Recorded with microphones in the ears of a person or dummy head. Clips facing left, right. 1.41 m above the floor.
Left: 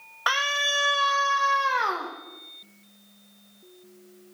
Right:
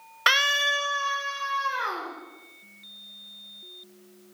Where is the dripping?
I don't hear dripping.